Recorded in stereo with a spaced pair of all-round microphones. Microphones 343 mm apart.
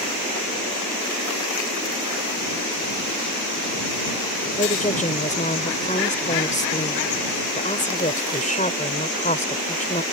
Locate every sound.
4.6 s a woman speaking: 20° left (ahead or behind)